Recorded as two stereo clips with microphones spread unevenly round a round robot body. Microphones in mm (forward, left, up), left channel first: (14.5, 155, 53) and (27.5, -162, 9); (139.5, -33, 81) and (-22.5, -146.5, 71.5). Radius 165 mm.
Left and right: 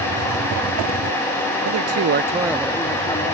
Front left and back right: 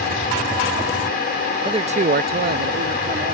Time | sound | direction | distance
1.6 | a man speaking | 80° right | ?